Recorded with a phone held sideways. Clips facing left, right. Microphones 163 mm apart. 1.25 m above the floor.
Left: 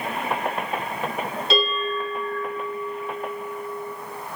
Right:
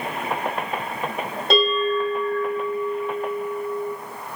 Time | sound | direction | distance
1.5 | a bell | 60° right (ahead or behind) | 2.5 m